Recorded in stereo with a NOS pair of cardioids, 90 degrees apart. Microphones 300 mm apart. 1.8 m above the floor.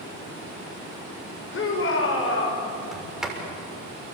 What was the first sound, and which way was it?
A shout, 45° left.